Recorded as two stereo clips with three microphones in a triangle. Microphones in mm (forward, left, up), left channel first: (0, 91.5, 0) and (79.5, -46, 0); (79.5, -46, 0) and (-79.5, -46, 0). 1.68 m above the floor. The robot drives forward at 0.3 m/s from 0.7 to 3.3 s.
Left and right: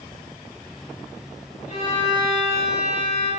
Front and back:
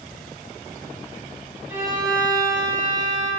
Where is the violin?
115° left, 1.3 m; by 3.3 s 140° left, 1.5 m.